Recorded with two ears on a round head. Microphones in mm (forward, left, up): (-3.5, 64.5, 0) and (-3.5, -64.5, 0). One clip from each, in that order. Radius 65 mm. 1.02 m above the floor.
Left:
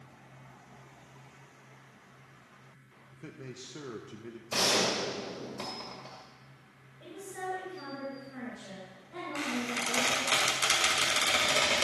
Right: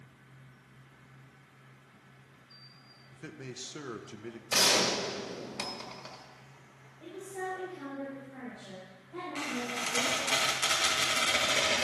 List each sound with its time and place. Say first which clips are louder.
3.1 s a man speaking: right 2 dB; 35° right (ahead or behind), 0.6 m
4.5 s a gunshot: right 2 dB; 55° right (ahead or behind), 2 m
7.0 s a woman speaking: right 1 dB; 70° left (ahead or behind), 4 m
9.3 s a squeak: left 2 dB; 15° left (ahead or behind), 2 m